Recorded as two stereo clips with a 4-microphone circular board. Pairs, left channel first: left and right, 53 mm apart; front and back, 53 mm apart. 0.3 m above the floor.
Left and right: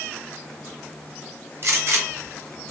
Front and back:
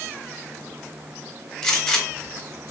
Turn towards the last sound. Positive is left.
turn(degrees=-75)